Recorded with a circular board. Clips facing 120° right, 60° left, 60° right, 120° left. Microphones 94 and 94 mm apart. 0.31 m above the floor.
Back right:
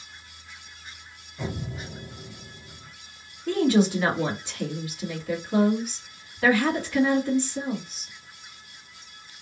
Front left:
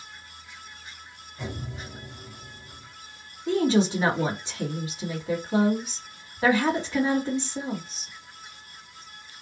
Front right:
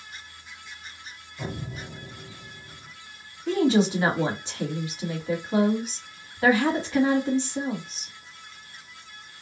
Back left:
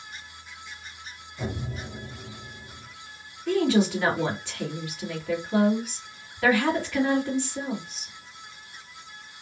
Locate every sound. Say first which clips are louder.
1.4 s an explosion: back right 3 dB, back left 2 dB; straight behind, 1.6 m
3.5 s a woman speaking: back right 1 dB, front right 1 dB; straight ahead, 2 m